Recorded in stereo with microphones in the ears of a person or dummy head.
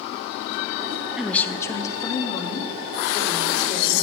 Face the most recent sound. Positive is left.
turn(degrees=30)  # may be behind; listen again after turning